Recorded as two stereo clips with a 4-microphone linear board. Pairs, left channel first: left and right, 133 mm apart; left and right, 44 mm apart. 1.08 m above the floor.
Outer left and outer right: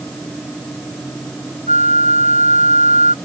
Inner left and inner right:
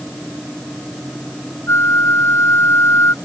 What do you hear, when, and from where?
1.7 s a flute: 70° left (ahead or behind)